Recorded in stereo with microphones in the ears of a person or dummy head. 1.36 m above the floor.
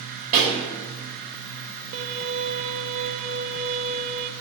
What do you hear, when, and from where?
0.3 s a pop: 45° right (ahead or behind), 2.5 m
1.9 s a violin: 40° right (ahead or behind), 0.6 m